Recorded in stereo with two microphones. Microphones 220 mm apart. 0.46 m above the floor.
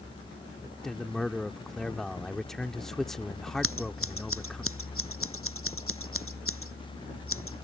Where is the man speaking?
Centre (ahead or behind).